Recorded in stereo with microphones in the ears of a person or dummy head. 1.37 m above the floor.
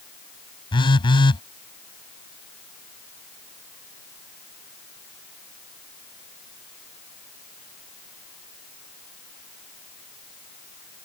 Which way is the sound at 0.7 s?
30° left (ahead or behind).